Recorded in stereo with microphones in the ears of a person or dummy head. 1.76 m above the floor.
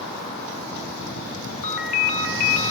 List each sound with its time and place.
1.6 s a ringtone: 50° left (ahead or behind), 1.0 m